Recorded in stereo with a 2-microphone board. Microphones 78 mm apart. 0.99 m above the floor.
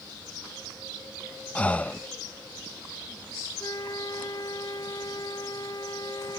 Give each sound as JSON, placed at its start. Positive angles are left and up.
{"t": 1.6, "sound": "breathing", "side_deg": 15}
{"t": 3.6, "sound": "a flute", "side_deg": 50}